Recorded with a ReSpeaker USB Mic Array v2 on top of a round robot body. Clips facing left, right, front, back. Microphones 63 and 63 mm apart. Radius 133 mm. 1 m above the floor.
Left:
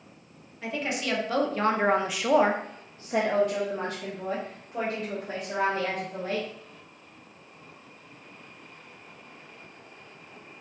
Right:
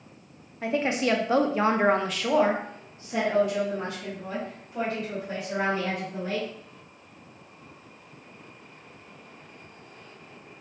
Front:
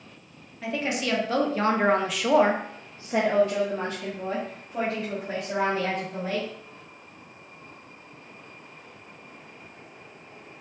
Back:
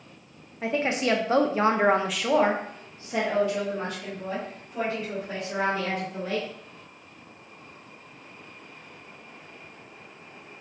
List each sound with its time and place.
0.6 s a woman speaking: 135° right, 1.0 m; by 6.5 s 55° left, 2.5 m